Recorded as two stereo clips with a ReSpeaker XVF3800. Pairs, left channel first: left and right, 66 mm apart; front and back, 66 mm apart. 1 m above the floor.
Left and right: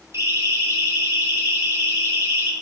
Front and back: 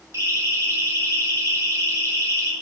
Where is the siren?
140° right, 7.5 m; by 2.5 s 145° right, 6.5 m.